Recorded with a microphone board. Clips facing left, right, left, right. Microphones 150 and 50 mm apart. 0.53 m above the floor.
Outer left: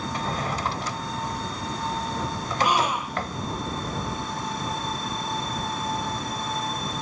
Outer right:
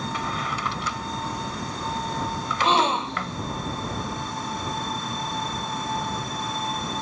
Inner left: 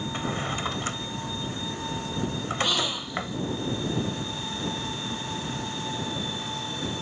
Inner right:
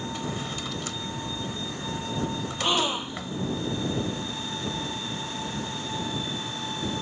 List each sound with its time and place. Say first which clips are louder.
0.1 s a drawer: outer left 1 dB, inner left 3 dB; 40° left (ahead or behind)
2.6 s a gasp: outer right 2 dB, inner right 3 dB; 25° right (ahead or behind)